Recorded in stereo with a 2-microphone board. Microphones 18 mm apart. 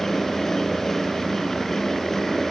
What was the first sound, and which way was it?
Only background noise.